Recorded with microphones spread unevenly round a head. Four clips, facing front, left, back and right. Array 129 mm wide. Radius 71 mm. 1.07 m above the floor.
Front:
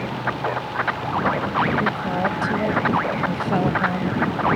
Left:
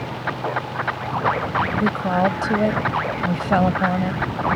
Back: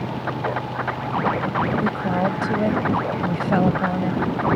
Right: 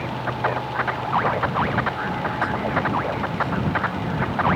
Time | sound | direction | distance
1.8 | a woman speaking | 125° left | ?